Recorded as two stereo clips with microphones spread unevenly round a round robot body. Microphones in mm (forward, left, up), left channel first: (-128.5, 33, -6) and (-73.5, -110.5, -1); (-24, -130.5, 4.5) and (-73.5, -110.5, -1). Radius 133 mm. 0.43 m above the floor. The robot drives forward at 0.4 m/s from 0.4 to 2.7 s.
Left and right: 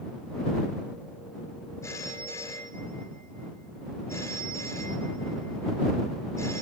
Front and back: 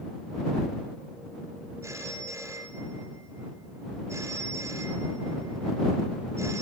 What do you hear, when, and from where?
1.8 s a phone ringing: 175° right, 6.5 m